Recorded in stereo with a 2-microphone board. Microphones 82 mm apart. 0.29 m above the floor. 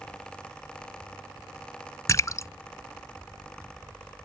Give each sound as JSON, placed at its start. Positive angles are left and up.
{"t": 2.1, "sound": "a splash", "side_deg": 40}